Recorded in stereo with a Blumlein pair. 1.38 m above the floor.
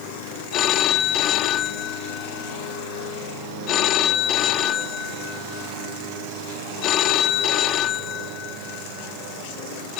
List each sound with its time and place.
0.5 s a phone ringing: 35° left